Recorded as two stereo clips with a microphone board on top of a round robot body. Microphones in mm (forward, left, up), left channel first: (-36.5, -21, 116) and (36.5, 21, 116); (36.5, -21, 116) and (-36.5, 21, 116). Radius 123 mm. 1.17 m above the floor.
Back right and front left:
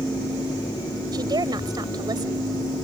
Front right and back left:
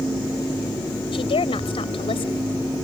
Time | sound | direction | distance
1.1 | a woman speaking | 10° right | ?